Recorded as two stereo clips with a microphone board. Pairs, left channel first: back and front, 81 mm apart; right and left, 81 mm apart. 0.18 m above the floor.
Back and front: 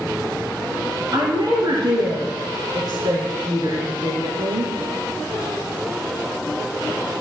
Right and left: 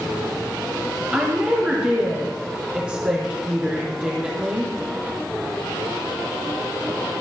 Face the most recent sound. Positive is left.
turn(degrees=15)